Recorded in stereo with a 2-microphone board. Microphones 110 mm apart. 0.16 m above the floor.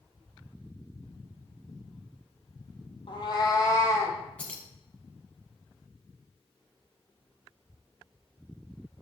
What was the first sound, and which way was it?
A cat meowing, 50° left (ahead or behind).